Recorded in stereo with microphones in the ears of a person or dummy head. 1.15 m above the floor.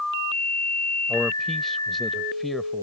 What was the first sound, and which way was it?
A man speaking, 5° left (ahead or behind).